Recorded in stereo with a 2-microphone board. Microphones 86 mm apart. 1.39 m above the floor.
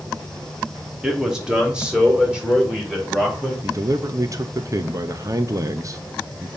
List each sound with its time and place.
1.0 s a man speaking: 10° right (ahead or behind), 1.3 m
3.6 s a man speaking: 40° right (ahead or behind), 0.7 m